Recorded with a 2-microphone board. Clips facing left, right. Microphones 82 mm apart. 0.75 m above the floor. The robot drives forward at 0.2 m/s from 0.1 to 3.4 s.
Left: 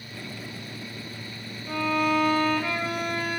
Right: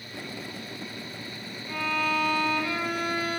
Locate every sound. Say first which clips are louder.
1.7 s a violin: left 4 dB; 65° left (ahead or behind), 0.8 m; by 3.4 s 55° left (ahead or behind), 0.9 m